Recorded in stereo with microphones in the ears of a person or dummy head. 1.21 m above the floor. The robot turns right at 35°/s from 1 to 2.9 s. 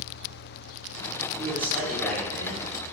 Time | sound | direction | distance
1.4 | a man speaking | 20° right | 2.5 m